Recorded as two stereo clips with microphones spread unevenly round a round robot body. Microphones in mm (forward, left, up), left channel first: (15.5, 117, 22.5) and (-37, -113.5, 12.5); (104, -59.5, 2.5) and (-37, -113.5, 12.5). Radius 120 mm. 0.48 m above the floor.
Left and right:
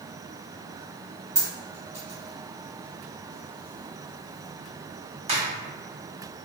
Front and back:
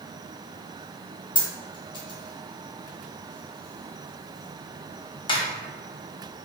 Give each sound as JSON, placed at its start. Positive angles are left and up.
{"t": 1.4, "sound": "a dropped coin", "azimuth_deg": -35, "distance_m": 1.0}